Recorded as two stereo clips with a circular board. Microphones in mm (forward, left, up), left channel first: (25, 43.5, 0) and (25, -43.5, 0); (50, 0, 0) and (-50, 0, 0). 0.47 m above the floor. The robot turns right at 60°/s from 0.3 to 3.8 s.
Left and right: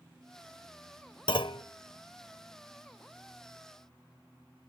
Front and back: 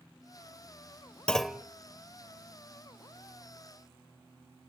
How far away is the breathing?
No breathing in this recording.